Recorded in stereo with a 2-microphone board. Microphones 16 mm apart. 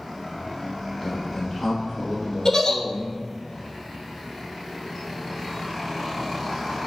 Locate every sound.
1.0 s a man speaking: 20° left (ahead or behind), 1.6 m; by 3.2 s 35° right (ahead or behind), 1.6 m
2.5 s a giggle: 45° left (ahead or behind), 0.8 m